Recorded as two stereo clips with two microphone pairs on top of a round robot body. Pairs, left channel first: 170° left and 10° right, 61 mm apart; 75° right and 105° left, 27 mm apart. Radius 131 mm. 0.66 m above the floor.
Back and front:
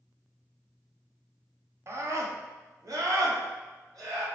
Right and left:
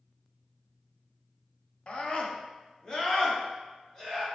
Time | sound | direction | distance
1.9 | a scream | 45° right | 1.8 m